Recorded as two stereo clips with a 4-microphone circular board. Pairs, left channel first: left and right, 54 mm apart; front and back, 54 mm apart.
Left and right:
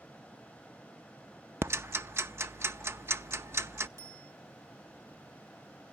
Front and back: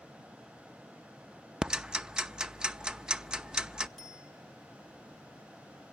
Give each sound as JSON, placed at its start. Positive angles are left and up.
{"t": 1.6, "sound": "ticking", "azimuth_deg": -110, "distance_m": 0.6}
{"t": 4.0, "sound": "a bicycle bell", "azimuth_deg": -80, "distance_m": 6.0}